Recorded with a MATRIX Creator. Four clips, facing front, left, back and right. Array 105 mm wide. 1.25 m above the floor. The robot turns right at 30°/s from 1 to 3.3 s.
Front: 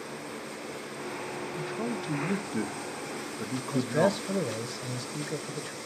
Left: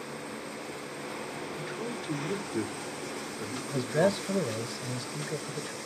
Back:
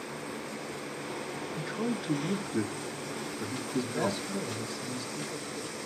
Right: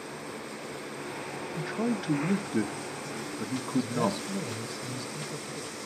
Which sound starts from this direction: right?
A man speaking, at 1.6 s.